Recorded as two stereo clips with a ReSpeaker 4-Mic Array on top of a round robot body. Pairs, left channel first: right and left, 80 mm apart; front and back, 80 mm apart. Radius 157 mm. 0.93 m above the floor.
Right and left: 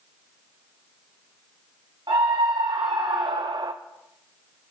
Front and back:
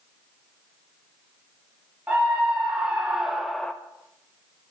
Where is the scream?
110° left, 3 m; by 3.7 s 75° left, 0.9 m.